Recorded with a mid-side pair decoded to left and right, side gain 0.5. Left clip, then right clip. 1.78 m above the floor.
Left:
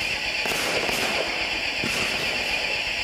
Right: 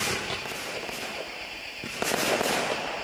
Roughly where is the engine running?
Ahead left.